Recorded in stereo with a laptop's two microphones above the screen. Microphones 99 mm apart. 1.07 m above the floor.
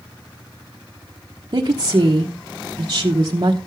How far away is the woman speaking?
About 1.0 m.